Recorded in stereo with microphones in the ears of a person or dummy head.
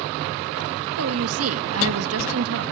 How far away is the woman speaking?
About 2.5 m.